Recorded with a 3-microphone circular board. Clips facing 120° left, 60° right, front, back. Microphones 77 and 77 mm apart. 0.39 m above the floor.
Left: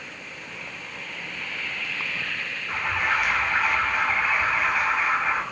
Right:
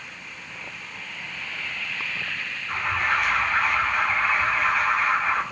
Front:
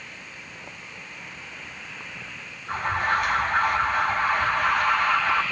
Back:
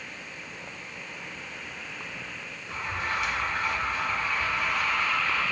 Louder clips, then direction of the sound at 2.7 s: Right 1 dB, front 8 dB; 35° left.